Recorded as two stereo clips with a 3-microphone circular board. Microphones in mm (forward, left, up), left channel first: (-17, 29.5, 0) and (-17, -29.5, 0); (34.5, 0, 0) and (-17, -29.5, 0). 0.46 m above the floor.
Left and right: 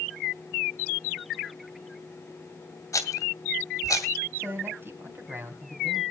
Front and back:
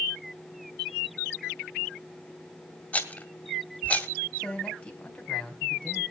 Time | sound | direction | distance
2.9 | a rattle | 95° left | 1.8 m
4.4 | a man speaking | 45° right | 3.5 m